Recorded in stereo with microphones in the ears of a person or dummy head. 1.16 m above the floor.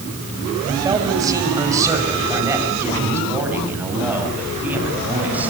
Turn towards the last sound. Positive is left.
turn(degrees=-5)  # may be behind; listen again after turning